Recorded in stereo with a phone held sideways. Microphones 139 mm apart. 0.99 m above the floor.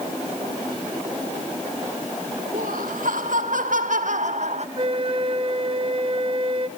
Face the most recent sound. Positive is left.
turn(degrees=-40)  # may be behind; listen again after turning